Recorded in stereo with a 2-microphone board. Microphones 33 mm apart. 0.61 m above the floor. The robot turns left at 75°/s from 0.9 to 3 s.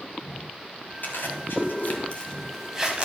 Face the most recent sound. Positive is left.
turn(degrees=-35)  # may be behind; listen again after turning